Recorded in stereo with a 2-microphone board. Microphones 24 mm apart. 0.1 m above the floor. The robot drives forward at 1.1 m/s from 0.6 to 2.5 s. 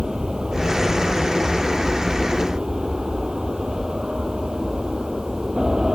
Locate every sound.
0.0 s an aircraft: 35° right (ahead or behind)